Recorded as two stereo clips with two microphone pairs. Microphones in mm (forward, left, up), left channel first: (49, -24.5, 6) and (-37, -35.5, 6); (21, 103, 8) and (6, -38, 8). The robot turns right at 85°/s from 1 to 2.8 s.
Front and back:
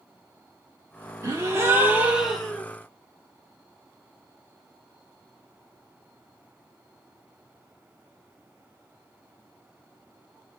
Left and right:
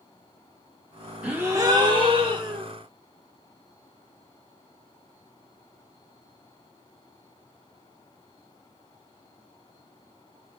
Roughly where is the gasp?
Behind.